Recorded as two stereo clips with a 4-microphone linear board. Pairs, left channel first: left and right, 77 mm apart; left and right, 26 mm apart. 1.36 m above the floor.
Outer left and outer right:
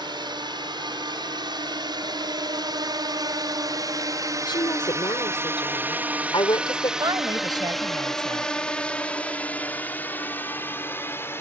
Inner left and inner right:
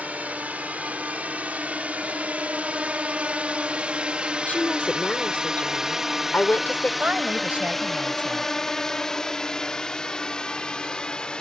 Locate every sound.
0.0 s a drone: 75° right (ahead or behind); by 11.4 s 30° left (ahead or behind)
4.5 s a woman speaking: 85° left
7.0 s a woman speaking: 65° right (ahead or behind)